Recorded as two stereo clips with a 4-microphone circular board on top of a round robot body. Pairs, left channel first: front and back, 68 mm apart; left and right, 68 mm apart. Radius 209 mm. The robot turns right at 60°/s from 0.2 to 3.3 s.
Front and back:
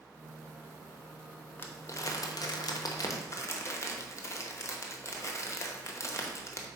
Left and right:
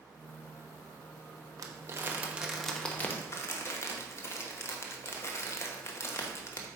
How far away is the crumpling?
About 1.1 m.